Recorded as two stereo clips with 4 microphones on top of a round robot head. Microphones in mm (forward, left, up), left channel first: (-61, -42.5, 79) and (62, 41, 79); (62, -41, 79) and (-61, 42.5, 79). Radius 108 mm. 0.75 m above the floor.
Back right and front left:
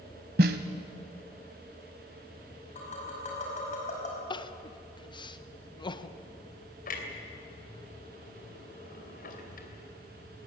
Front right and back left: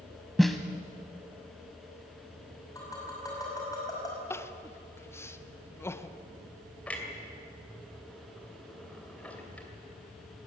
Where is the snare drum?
55° left, 0.8 m.